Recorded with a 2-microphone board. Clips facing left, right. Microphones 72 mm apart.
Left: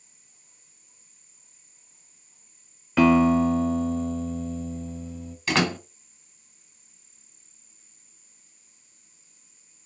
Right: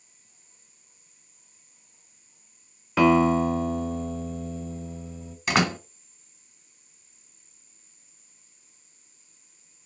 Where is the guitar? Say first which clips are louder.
Left 1 dB; 5° right (ahead or behind), 0.8 m.